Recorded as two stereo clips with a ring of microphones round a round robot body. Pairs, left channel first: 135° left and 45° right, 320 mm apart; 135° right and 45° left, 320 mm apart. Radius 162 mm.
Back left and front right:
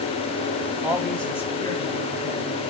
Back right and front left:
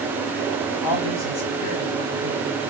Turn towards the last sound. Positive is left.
turn(degrees=-160)